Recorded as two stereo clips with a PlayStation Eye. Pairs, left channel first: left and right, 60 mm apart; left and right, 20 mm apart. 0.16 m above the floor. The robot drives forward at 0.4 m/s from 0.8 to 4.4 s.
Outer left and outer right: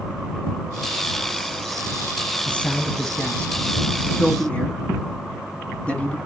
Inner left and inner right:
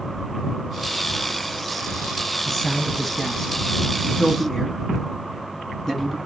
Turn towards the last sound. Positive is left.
turn(degrees=20)  # may be behind; listen again after turning